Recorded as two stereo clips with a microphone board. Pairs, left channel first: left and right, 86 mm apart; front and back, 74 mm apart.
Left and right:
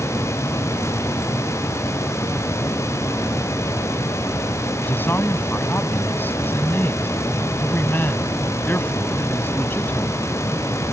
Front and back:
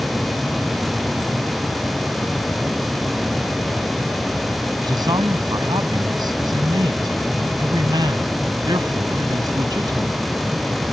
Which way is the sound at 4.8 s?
155° left.